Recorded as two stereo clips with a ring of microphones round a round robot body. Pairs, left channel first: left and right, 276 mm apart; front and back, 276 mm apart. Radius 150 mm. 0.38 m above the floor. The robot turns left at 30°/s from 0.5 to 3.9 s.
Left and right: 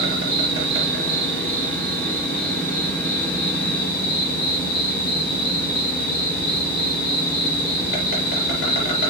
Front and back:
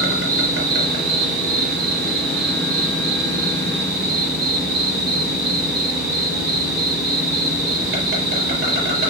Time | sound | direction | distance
0.0 | an insect | 140° right | 4.5 m